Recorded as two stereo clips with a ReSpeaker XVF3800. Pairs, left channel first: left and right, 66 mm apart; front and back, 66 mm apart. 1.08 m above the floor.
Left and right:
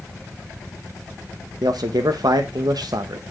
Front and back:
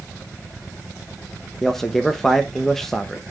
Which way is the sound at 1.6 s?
85° right.